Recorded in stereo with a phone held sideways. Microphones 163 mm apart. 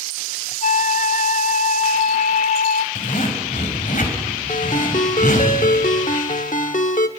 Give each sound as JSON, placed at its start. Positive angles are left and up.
{"t": 0.6, "sound": "a flute", "side_deg": 55, "distance_m": 0.7}
{"t": 3.0, "sound": "a zipper", "side_deg": 60, "distance_m": 4.0}
{"t": 4.5, "sound": "a ringtone", "side_deg": 60, "distance_m": 1.1}